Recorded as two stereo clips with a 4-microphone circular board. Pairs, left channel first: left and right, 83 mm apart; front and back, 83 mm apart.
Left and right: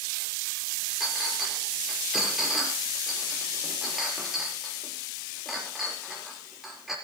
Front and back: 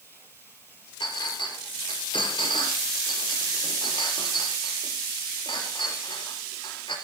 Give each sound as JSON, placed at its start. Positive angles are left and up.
{"t": 1.0, "sound": "a clink", "azimuth_deg": -5, "distance_m": 5.0}